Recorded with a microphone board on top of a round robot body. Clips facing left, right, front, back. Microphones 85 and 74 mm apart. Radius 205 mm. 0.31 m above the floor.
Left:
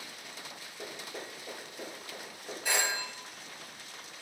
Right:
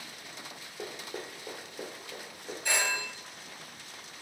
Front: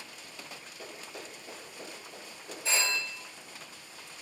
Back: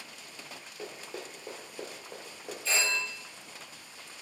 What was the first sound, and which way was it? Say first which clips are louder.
Running footsteps: right 3 dB, back 4 dB; 105° right.